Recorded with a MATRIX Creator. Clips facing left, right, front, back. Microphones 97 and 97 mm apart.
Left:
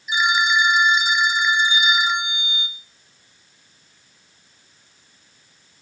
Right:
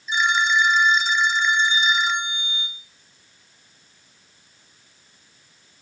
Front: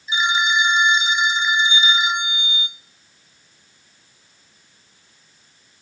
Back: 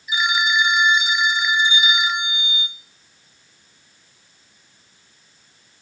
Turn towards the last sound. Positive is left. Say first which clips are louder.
# left 1 dB, front 1 dB
turn(degrees=25)